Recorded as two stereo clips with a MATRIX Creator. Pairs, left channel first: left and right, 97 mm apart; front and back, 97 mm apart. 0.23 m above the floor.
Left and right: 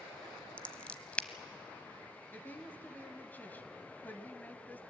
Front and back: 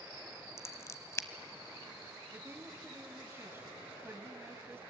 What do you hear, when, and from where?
0.6 s scissors: 25° left, 0.8 m
2.3 s a woman speaking: 140° left, 1.2 m